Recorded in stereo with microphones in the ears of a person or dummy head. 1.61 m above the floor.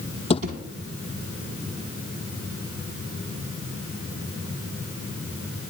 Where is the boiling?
I don't hear boiling.